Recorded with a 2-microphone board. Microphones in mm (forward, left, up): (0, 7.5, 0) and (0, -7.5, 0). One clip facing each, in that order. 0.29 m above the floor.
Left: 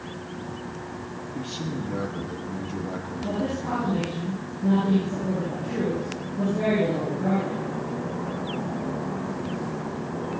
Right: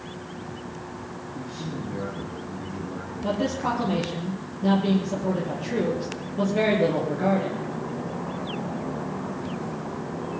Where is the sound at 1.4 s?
70° left (ahead or behind), 8 m.